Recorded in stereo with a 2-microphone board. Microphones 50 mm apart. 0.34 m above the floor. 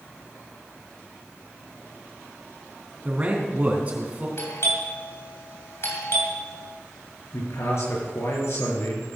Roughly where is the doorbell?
Left.